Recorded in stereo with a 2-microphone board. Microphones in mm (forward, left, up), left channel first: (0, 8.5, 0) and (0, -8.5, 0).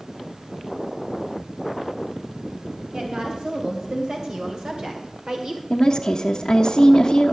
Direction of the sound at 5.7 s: 50° left (ahead or behind).